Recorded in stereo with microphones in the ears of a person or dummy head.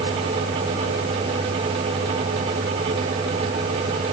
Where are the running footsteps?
No running footsteps in this recording.